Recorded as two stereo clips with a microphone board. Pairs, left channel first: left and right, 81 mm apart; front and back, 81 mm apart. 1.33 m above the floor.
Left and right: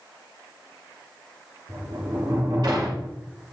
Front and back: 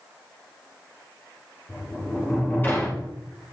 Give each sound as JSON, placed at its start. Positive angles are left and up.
{"t": 1.7, "sound": "a sliding door", "azimuth_deg": -65, "distance_m": 2.5}